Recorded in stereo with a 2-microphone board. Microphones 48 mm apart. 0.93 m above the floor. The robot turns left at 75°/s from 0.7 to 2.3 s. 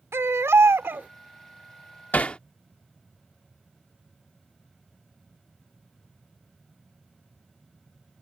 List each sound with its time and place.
0.1 s a baby crying: 65° right (ahead or behind); by 1.1 s 35° right (ahead or behind)
2.1 s hammering: 35° left (ahead or behind); by 2.4 s 25° left (ahead or behind)